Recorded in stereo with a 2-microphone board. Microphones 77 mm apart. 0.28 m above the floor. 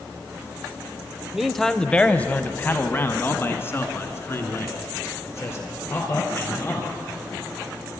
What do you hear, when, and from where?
1.3 s a man speaking: 5° right (ahead or behind), 0.9 m; by 6.9 s 35° left (ahead or behind), 5 m